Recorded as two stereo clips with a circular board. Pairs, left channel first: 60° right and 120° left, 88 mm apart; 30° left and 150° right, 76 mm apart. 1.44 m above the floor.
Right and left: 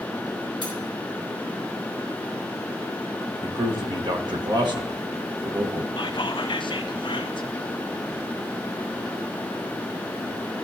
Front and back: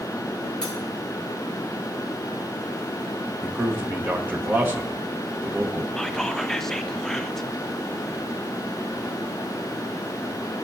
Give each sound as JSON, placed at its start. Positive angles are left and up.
{"t": 0.6, "sound": "cutlery clinking", "azimuth_deg": 105, "distance_m": 3.0}
{"t": 3.4, "sound": "a man speaking", "azimuth_deg": 145, "distance_m": 1.0}
{"t": 6.0, "sound": "whispering", "azimuth_deg": -55, "distance_m": 0.6}